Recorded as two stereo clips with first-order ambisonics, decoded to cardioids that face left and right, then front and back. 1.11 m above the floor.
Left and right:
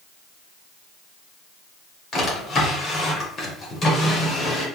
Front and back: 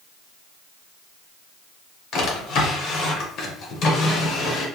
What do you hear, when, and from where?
2.1 s a drawer: 40° left, 0.9 m